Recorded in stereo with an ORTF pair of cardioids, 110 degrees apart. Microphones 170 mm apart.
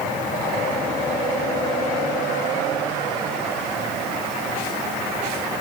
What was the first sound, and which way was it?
Only background noise.